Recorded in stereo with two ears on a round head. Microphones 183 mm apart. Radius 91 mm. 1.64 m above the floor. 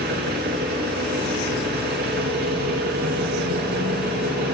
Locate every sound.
0.0 s an engine running: 50° right (ahead or behind), 4.5 m